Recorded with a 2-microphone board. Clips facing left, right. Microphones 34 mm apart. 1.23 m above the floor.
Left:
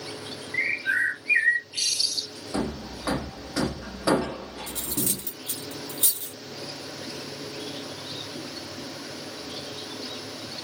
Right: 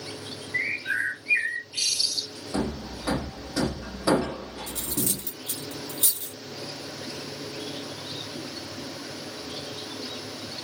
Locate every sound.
0.5 s a bird: 35° left (ahead or behind), 1.4 m
2.5 s hammering: 35° left (ahead or behind), 0.7 m
4.7 s cutlery clinking: 55° left (ahead or behind), 0.6 m